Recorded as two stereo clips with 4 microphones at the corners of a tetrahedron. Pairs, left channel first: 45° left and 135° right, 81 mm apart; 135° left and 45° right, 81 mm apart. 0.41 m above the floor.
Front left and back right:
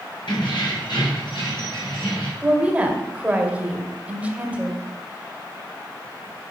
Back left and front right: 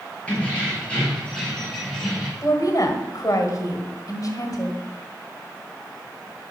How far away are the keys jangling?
About 4.5 m.